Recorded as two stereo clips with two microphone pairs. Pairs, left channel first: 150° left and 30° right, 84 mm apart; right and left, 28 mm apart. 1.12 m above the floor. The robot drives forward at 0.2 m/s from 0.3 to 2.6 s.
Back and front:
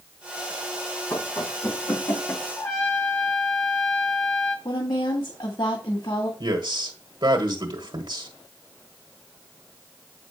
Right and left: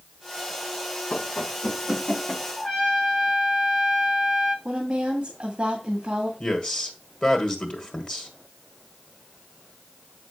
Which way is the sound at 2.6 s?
150° right.